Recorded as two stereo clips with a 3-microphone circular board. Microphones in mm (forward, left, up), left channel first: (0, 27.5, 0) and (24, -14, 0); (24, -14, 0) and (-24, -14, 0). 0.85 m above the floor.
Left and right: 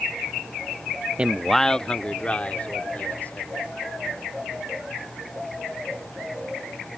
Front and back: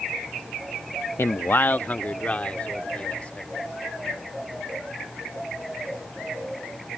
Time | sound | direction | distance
1.2 | a man speaking | straight ahead | ?